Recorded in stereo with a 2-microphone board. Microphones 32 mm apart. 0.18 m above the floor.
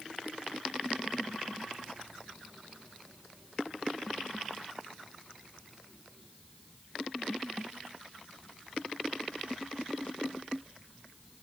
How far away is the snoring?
No snoring in this recording.